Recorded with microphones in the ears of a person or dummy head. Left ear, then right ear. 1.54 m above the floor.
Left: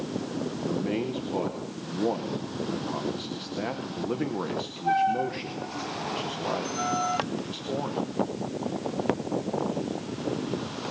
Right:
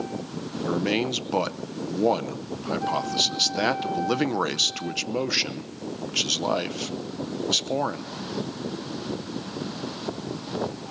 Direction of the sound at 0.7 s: 55° right (ahead or behind).